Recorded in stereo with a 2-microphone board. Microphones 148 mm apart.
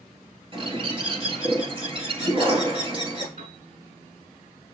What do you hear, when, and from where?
0.5 s a bird: 40° right (ahead or behind), 1.8 m
3.4 s a piano: 65° right (ahead or behind), 1.9 m